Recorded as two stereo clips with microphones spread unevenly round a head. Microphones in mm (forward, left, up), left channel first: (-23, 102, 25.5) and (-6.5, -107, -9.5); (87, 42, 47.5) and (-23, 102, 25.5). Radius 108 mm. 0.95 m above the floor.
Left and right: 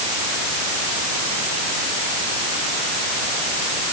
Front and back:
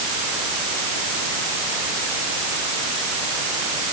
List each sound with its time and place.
Only background noise.